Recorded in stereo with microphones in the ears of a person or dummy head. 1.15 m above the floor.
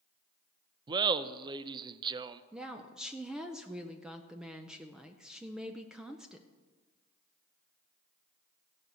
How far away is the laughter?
About 0.5 m.